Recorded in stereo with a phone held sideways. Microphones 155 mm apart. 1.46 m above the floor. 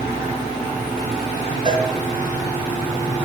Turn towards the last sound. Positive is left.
turn(degrees=-30)  # may be behind; listen again after turning